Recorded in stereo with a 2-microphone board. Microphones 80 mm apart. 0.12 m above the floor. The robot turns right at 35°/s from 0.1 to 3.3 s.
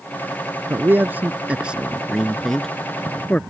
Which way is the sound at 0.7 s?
30° right (ahead or behind).